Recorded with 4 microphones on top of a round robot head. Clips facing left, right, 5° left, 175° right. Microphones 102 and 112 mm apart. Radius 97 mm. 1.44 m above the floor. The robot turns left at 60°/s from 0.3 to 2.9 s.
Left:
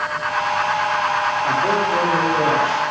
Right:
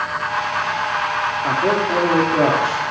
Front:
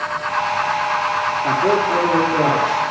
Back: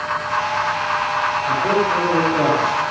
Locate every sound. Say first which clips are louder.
1.4 s a man speaking: right 3 dB, front 3 dB; 25° right, 2.5 m; by 2.9 s 110° right, 2.5 m